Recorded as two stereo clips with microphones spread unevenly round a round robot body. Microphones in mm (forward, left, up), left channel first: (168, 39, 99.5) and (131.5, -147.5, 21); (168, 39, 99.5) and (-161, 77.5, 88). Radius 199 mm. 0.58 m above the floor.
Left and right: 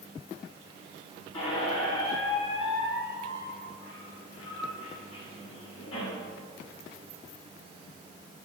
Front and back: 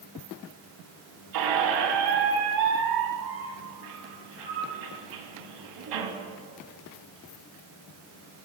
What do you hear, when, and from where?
1.3 s a squeak: 155° left, 1.4 m